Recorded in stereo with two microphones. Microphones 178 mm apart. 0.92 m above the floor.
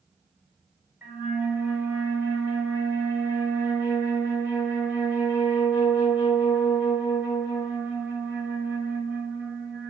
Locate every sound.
1.0 s a flute: 10° right (ahead or behind), 1.5 m